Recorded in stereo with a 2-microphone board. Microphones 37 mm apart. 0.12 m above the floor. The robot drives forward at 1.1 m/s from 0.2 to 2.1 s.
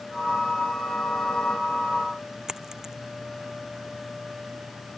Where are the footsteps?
No footsteps in this recording.